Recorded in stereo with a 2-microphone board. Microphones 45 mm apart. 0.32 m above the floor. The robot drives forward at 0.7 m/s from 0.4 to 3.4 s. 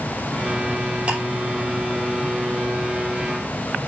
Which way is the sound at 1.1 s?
30° right (ahead or behind).